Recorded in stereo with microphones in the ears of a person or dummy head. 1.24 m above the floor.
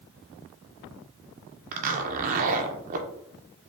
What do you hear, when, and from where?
1.7 s a zipper: 45° right (ahead or behind), 0.6 m